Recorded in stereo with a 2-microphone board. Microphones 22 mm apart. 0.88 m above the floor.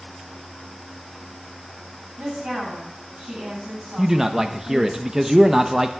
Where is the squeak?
No squeak in this recording.